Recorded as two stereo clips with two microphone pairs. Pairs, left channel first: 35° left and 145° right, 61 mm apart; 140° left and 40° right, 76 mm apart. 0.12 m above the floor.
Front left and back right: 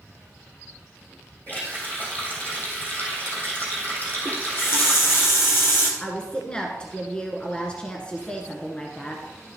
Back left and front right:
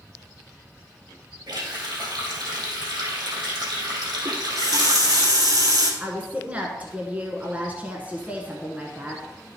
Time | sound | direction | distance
1.5 | a running tap | 20° right | 3 m
4.2 | a running tap | 5° right | 1.8 m
6.0 | a woman speaking | straight ahead | 1.1 m